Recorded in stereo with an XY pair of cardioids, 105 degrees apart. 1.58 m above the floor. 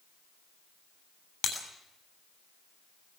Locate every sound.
1.4 s breaking glass: 70° left, 8 m